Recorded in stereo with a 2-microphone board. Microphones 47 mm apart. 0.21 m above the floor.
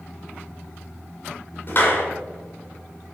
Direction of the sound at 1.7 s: 40° left (ahead or behind).